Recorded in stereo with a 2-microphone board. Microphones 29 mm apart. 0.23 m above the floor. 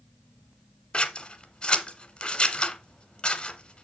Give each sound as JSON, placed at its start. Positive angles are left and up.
{"t": 0.9, "sound": "scissors", "side_deg": 40, "distance_m": 1.3}